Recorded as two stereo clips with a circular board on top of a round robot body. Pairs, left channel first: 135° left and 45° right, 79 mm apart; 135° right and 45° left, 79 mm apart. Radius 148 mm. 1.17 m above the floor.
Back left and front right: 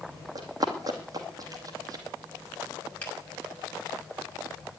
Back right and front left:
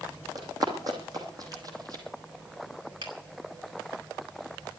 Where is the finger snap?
60° left, 6.5 m.